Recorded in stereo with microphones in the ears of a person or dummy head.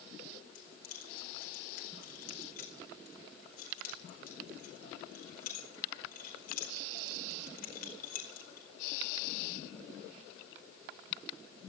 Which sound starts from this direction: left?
Keys jangling, at 0.6 s.